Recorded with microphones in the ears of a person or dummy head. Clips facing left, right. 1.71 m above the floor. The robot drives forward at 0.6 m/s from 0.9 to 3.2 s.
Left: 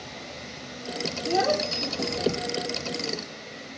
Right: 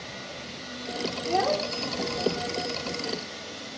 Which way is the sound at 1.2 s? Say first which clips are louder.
Left 2 dB; 25° left (ahead or behind).